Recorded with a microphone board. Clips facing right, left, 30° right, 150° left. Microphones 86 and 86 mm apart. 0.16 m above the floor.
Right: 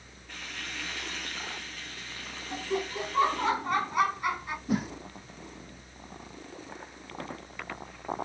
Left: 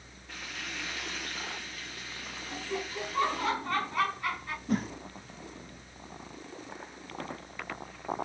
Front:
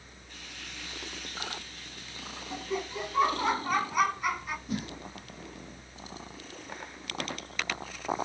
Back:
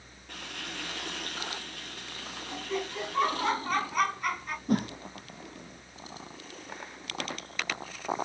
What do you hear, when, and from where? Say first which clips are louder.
0.3 s frying: even, back 7 dB; 175° left, 3.5 m
2.5 s laughter: right 5 dB, even; 105° right, 1.0 m
4.7 s a whoosh: right 1 dB, back 10 dB; 175° right, 1.4 m